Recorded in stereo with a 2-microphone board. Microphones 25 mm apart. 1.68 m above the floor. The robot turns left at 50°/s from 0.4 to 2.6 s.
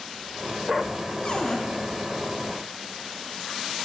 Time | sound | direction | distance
1.2 | a cupboard door | 35° left (ahead or behind) | 0.7 m